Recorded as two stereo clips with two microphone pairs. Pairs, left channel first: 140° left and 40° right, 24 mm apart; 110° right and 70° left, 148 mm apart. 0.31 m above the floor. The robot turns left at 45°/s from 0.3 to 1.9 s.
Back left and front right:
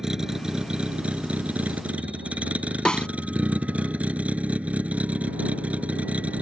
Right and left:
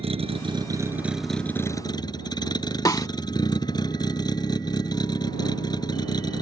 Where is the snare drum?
175° right.